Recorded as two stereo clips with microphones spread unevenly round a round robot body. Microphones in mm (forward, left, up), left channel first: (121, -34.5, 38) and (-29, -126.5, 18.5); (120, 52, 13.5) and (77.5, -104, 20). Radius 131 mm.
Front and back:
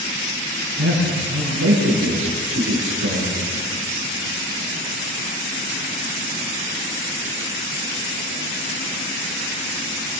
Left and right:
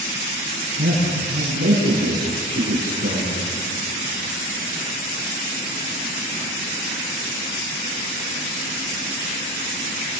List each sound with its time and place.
0.8 s a man speaking: 160° right, 9.5 m